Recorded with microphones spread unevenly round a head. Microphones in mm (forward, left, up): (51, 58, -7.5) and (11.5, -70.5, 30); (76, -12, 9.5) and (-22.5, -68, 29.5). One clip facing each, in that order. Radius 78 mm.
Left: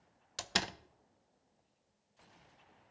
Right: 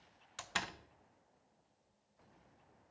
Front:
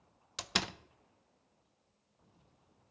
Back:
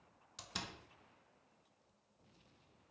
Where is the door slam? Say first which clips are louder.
Left 5 dB, front 10 dB; 30° left, 0.6 m.